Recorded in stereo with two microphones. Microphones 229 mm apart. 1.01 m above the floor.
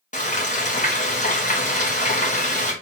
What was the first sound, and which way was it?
Frying, 35° left (ahead or behind).